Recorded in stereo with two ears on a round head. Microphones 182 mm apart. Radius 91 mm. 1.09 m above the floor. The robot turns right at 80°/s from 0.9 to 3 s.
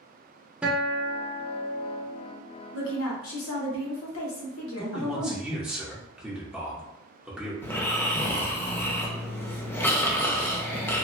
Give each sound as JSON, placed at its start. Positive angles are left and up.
{"t": 0.6, "sound": "a guitar", "azimuth_deg": -170, "distance_m": 0.7}
{"t": 2.7, "sound": "a woman speaking", "side_deg": 65, "distance_m": 1.0}
{"t": 4.8, "sound": "a man speaking", "side_deg": -5, "distance_m": 0.9}
{"t": 7.6, "sound": "snoring", "side_deg": 10, "distance_m": 0.5}